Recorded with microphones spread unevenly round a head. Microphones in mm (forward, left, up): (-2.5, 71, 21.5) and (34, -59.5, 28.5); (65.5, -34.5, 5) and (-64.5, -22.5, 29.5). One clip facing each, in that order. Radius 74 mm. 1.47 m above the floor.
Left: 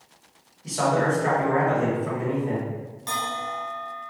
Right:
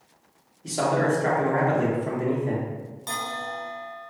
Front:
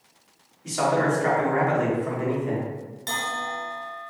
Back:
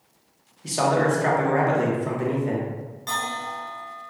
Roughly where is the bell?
Ahead.